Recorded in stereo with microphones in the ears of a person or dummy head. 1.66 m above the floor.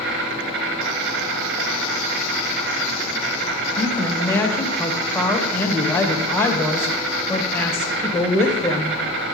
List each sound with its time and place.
0.0 s an insect: 60° right (ahead or behind), 3 m
3.8 s a woman speaking: 15° left (ahead or behind), 2 m